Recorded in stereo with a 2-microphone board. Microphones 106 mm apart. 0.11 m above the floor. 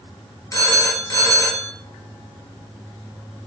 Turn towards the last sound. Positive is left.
turn(degrees=30)  # may be behind; listen again after turning